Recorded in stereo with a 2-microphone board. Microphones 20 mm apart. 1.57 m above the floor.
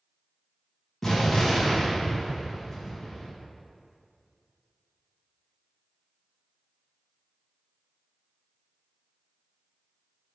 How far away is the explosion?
About 1.3 m.